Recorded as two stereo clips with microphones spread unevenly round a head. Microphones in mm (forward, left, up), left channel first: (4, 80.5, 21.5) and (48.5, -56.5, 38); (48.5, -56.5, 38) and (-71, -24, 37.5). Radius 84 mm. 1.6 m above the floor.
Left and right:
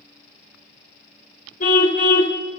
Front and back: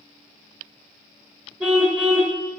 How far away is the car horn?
About 2 m.